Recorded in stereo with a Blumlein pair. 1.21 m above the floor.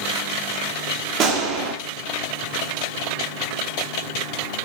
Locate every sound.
1.2 s a gunshot: 30° right, 2.5 m